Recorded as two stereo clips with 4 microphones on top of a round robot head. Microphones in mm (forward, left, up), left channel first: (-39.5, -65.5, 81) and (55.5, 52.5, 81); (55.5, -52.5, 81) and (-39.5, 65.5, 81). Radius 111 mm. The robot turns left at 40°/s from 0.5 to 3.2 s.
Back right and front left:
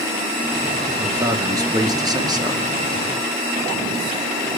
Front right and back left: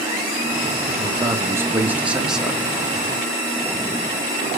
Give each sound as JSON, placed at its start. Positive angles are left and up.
{"t": 1.0, "sound": "a man speaking", "azimuth_deg": 100, "distance_m": 1.1}